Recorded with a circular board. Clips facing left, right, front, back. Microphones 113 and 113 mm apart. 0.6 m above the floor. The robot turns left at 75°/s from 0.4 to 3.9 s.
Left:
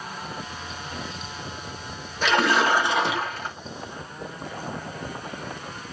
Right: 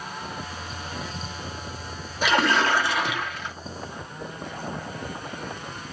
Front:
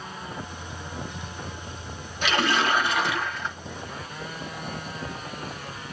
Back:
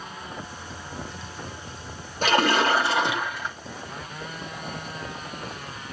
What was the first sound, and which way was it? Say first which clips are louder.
A splash: left 1 dB, back 3 dB; 165° right.